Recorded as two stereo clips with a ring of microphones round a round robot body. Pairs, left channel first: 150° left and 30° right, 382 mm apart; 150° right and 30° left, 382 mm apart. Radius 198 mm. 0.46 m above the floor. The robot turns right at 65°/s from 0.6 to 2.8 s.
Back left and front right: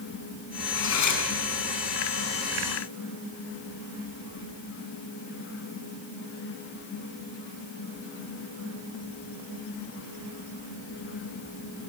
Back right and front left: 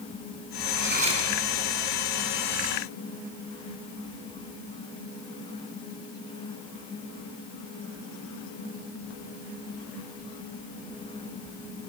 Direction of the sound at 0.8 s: 85° left.